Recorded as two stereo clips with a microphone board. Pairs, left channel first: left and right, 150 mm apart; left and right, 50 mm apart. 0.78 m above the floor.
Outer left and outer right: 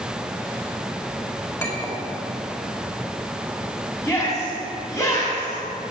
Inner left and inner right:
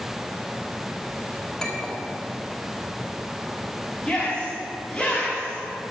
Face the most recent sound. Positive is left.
turn(degrees=20)  # may be behind; listen again after turning